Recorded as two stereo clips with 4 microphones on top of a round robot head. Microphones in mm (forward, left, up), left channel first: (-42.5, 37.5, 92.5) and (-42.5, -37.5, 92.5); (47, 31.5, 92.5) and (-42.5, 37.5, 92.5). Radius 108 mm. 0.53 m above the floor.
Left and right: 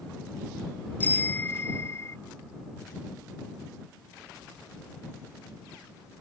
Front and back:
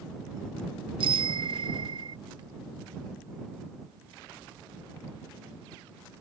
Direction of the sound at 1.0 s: 155° left.